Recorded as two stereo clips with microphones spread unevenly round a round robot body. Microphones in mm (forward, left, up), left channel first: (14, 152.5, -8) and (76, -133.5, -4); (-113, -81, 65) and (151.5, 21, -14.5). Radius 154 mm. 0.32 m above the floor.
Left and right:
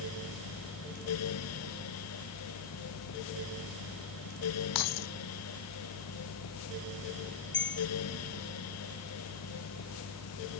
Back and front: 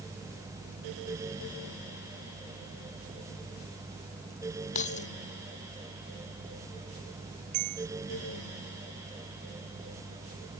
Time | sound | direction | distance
4.8 | keys jangling | 135° left | ?
7.5 | a bell | 50° left | ?